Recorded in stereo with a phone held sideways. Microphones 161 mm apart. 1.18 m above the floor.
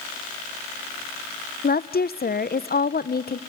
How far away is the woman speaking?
About 0.5 m.